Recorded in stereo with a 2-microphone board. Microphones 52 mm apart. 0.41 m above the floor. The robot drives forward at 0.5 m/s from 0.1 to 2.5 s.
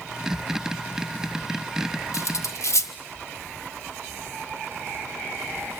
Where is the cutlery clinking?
70° left (ahead or behind), 1.2 m.